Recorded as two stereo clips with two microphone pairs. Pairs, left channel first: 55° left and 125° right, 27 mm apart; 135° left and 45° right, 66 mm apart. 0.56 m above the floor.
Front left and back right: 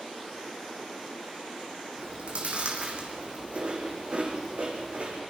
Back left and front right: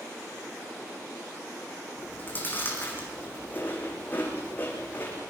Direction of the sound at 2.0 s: 165° right.